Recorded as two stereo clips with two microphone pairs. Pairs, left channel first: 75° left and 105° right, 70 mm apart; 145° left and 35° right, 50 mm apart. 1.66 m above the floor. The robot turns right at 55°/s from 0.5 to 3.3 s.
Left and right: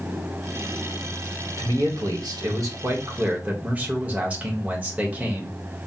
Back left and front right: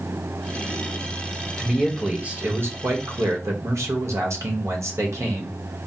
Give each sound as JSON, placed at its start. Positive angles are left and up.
{"t": 1.6, "sound": "a man speaking", "azimuth_deg": -130, "distance_m": 1.1}